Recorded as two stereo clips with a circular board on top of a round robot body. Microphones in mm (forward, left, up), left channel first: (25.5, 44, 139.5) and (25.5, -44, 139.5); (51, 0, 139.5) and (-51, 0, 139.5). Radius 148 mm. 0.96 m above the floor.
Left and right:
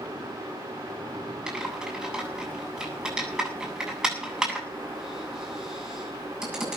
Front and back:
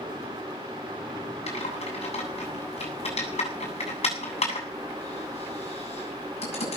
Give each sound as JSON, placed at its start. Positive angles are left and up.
{"t": 1.5, "sound": "typing on a keyboard", "azimuth_deg": -10, "distance_m": 8.0}